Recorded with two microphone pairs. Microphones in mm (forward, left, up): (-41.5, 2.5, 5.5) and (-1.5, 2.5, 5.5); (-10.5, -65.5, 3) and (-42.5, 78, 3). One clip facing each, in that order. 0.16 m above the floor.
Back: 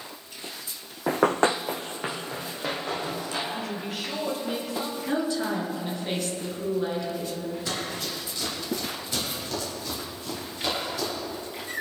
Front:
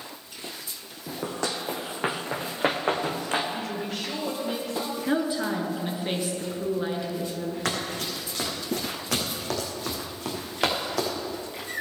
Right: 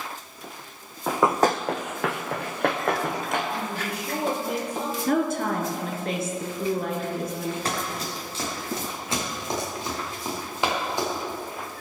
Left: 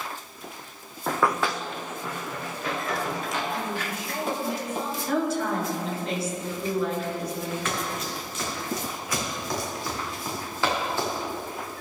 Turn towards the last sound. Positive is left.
turn(degrees=-5)